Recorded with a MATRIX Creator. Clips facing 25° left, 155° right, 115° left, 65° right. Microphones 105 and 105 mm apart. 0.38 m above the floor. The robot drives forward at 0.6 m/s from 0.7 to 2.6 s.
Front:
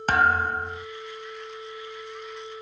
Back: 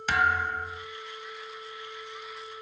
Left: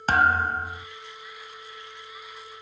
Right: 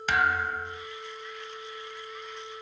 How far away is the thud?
About 0.8 m.